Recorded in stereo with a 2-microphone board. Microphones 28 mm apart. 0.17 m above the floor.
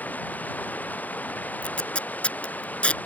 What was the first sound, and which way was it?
Running water, 75° left (ahead or behind).